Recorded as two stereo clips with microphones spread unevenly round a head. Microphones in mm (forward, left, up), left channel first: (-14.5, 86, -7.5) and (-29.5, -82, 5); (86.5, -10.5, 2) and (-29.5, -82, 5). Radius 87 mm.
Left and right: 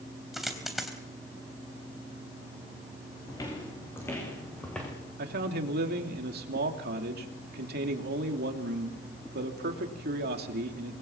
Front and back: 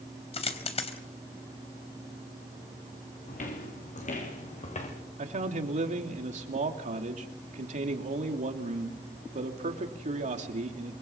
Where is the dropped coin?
5° right, 3.5 m.